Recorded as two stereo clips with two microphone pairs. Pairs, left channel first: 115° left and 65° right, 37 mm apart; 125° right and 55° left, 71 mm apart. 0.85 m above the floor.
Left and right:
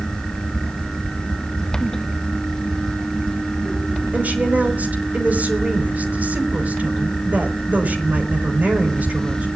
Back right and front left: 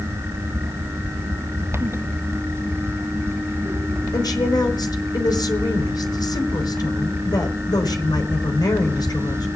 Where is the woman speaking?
110° right, 3.5 m.